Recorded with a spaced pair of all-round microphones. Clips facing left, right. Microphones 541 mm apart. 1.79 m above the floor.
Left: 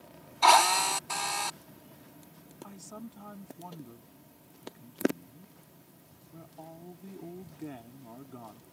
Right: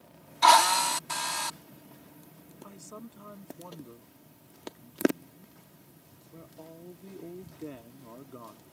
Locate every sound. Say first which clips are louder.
0.4 s a drill: right 1 dB; 40° right (ahead or behind)
2.6 s a man speaking: left 1 dB; 10° left (ahead or behind)